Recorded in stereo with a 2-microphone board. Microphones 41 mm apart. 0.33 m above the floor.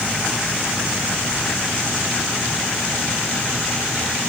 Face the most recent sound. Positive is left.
No sound to turn to.